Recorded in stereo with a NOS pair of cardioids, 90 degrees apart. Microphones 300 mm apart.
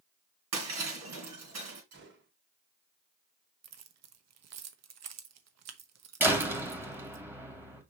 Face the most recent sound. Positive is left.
turn(degrees=-5)